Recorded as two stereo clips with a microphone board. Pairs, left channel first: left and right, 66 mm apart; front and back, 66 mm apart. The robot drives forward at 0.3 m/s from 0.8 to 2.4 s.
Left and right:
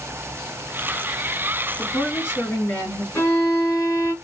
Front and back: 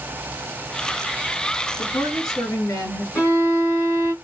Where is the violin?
40° left, 3 m.